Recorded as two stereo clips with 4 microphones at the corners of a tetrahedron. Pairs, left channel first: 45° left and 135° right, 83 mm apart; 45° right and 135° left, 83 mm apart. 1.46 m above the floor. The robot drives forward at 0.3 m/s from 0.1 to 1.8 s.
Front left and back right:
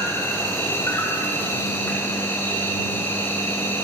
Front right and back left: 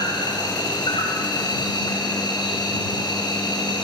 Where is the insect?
15° right, 4.5 m; by 3.9 s 20° right, 4 m.